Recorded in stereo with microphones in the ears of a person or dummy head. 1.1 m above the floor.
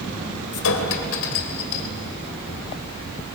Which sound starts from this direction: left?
A clink, at 0.5 s.